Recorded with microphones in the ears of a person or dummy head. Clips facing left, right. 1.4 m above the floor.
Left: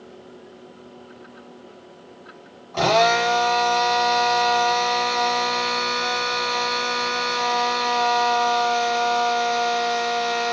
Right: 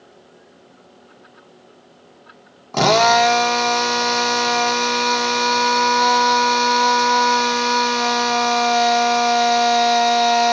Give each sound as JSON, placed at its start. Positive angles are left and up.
{"t": 2.7, "sound": "a drill", "side_deg": -60, "distance_m": 1.1}